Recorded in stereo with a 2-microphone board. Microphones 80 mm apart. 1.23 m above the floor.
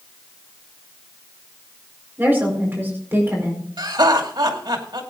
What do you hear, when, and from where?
2.2 s a woman speaking: 25° right (ahead or behind), 4.5 m
3.8 s laughter: 75° right (ahead or behind), 2.5 m